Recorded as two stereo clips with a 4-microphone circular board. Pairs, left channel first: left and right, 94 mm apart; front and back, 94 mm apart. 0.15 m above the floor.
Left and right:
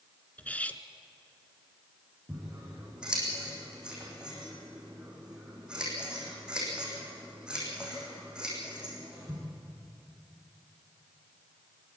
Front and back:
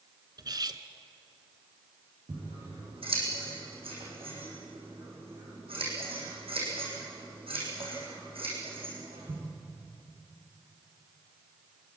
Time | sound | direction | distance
0.4 | cutlery clinking | 160° left | 1.0 m
2.3 | scissors | 170° right | 7 m